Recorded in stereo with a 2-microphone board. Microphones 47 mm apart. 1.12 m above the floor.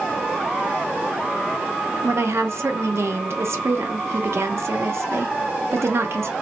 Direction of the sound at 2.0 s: 65° right (ahead or behind).